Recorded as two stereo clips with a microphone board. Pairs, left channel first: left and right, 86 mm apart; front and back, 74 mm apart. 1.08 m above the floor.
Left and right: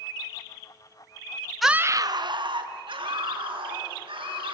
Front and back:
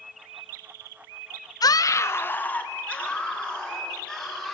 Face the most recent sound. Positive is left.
turn(degrees=-80)